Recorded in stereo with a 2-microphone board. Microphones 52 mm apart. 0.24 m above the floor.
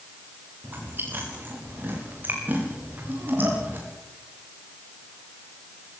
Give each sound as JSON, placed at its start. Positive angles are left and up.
{"t": 0.6, "sound": "chewing", "side_deg": -40, "distance_m": 7.5}